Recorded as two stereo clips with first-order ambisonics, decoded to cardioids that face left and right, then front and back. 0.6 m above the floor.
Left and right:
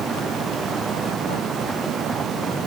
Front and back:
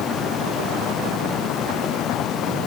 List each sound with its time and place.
Only background noise.